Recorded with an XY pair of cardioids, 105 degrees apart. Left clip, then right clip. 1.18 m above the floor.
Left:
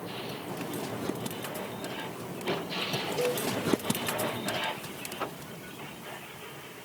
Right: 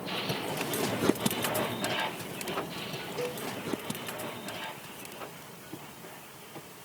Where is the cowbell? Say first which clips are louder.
Left 5 dB; 35° left, 3 m.